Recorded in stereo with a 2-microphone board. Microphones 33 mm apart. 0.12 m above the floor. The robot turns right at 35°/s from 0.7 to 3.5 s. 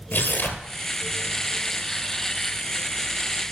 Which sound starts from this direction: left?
Tearing paper, at 0.1 s.